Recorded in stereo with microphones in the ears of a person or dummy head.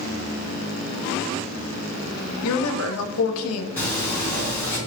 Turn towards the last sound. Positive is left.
turn(degrees=10)  # may be behind; listen again after turning